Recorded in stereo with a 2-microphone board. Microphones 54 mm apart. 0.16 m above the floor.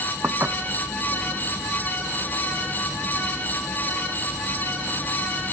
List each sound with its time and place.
0.2 s dishes clattering: 40° right (ahead or behind)